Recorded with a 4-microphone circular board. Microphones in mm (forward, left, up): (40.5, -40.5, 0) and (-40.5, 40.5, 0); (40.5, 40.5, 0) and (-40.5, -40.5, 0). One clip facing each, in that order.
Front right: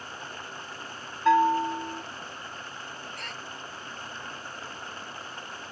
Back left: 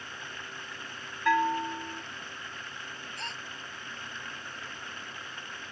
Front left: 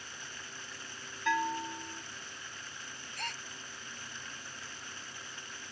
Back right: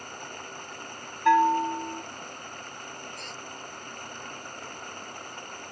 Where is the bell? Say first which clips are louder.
Front right 5 dB, back right 12 dB; 105° right.